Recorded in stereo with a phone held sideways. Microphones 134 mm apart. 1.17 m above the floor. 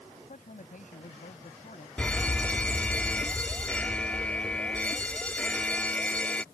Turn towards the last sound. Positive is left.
turn(degrees=10)  # may be behind; listen again after turning